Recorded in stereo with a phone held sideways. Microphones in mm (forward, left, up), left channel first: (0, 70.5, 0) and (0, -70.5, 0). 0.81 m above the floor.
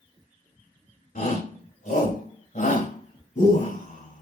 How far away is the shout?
About 3.5 m.